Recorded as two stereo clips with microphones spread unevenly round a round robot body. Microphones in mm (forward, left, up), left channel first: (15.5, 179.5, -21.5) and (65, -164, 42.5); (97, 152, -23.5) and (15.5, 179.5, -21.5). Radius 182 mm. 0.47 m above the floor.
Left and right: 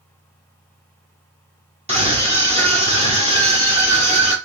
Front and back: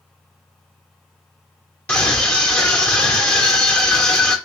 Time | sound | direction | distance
1.9 | a scream | 5° right | 1.0 m